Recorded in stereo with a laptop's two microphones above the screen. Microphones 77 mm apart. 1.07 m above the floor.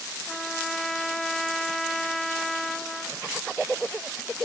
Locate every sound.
0.3 s a trumpet: 5° left (ahead or behind), 0.5 m